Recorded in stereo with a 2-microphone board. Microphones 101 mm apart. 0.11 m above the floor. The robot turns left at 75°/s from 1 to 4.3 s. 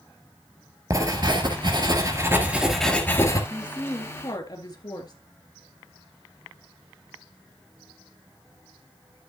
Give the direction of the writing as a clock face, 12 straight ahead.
2 o'clock.